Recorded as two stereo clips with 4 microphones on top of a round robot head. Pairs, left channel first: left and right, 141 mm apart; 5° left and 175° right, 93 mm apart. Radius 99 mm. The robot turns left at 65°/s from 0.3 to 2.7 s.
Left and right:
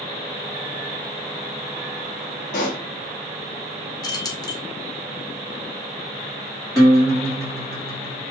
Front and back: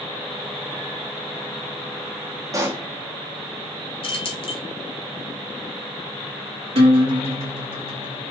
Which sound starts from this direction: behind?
A guitar, at 6.8 s.